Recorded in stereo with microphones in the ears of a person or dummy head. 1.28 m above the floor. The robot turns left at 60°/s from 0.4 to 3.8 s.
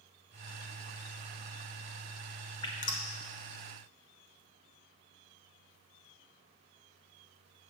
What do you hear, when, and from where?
2.6 s dripping: 25° left (ahead or behind), 1.0 m; by 3.0 s 50° left (ahead or behind), 1.0 m